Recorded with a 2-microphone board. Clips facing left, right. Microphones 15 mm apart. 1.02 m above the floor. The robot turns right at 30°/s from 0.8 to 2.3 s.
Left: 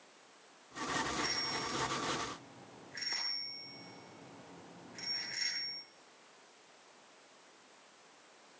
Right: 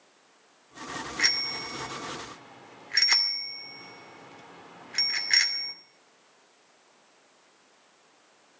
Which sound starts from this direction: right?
A bicycle bell, at 1.2 s.